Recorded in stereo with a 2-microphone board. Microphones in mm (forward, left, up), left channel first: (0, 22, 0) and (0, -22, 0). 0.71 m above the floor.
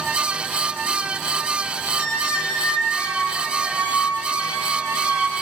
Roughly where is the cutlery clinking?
No cutlery clinking in this recording.